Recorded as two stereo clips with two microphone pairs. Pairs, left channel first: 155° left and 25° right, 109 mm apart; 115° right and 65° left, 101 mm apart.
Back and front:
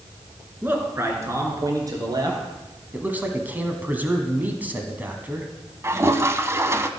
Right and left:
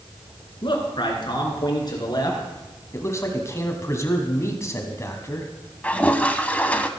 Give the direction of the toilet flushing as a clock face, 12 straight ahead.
2 o'clock.